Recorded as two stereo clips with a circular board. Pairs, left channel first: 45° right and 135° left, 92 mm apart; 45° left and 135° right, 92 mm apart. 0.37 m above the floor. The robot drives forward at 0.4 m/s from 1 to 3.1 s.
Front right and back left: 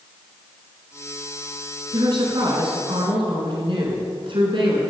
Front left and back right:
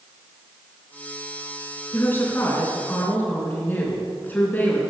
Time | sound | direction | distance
1.9 | a woman speaking | 105° left | 4 m